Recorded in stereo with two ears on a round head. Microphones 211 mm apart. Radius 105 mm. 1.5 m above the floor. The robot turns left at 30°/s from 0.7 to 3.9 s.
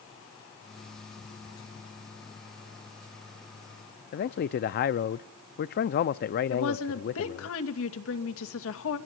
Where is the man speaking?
45° left (ahead or behind), 0.5 m.